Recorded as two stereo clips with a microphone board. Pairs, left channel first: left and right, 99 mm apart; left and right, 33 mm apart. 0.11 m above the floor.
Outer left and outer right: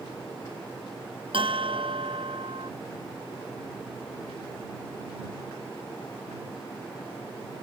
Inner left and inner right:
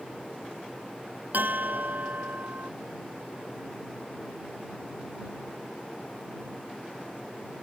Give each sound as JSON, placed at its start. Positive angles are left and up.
{"t": 1.3, "sound": "a bell", "side_deg": -60}